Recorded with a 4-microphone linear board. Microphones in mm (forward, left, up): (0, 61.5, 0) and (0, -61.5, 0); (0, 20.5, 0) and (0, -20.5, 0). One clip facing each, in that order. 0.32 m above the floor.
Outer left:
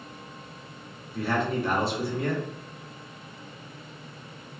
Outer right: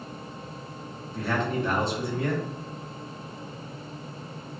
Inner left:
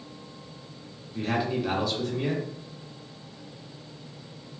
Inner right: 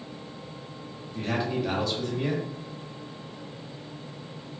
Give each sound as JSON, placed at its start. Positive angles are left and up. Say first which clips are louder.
{"t": 1.1, "sound": "a man speaking", "louder": "outer left 1 dB, inner left 1 dB", "side_deg": 5, "distance_m": 0.9}